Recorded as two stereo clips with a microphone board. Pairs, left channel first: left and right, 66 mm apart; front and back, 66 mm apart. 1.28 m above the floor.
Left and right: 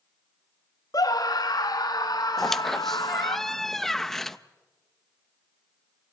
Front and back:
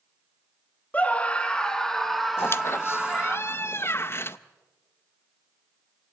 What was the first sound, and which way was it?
A scream, 70° left.